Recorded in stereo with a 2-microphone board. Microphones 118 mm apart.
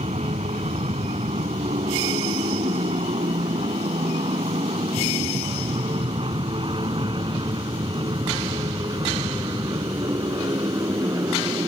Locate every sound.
0.0 s an aircraft: 65° right (ahead or behind); by 11.7 s 30° right (ahead or behind)